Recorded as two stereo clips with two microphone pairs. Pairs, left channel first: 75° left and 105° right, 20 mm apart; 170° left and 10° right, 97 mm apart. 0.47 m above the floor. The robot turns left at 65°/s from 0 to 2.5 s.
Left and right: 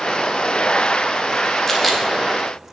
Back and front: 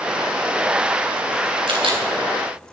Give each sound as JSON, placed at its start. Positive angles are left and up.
{"t": 1.7, "sound": "a camera shutter", "azimuth_deg": 0, "distance_m": 2.5}